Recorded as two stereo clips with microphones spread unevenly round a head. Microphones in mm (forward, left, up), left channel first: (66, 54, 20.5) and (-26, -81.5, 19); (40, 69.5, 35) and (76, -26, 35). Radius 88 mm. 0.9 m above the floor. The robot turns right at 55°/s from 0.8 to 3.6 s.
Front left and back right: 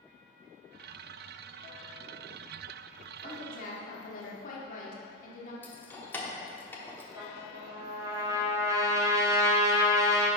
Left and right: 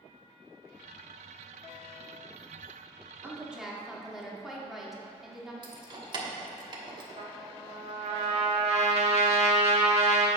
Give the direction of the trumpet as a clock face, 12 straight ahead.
2 o'clock.